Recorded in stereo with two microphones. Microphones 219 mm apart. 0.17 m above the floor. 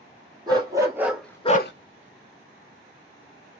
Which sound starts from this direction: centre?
A dog barking, at 0.5 s.